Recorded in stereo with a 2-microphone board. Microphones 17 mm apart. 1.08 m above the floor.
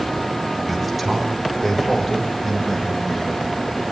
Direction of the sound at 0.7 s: 15° right (ahead or behind).